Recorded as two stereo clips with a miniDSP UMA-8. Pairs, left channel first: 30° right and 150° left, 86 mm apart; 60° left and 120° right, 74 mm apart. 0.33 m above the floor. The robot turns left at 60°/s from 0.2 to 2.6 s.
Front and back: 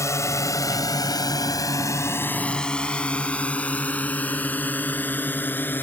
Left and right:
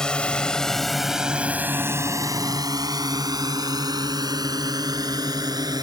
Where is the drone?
15° right; by 5.8 s 95° right.